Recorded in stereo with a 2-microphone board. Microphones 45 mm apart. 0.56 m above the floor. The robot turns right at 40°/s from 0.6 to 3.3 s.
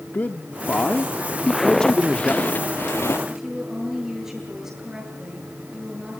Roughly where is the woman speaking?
Centre.